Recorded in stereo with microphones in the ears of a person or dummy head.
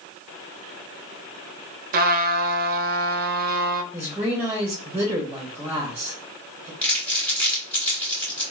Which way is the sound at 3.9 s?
10° right (ahead or behind).